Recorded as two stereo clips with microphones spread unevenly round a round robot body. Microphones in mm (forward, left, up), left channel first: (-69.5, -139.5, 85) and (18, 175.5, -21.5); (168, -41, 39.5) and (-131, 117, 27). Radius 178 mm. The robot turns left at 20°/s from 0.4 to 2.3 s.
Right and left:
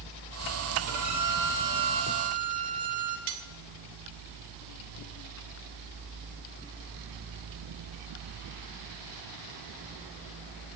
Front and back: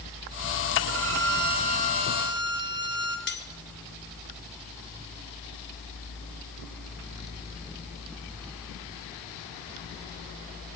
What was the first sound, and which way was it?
A violin, 105° left.